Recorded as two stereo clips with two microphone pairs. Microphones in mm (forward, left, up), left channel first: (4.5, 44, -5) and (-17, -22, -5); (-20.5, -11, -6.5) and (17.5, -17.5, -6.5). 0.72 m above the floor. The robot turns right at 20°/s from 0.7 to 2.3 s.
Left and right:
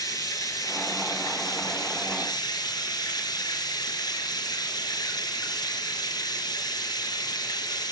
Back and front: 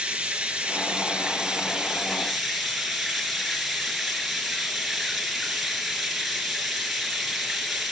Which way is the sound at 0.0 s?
50° left.